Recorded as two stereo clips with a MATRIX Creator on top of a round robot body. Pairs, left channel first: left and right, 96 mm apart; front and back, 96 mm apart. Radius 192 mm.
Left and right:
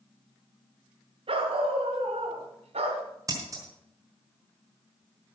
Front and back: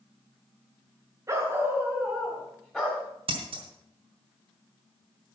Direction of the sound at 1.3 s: 120° right.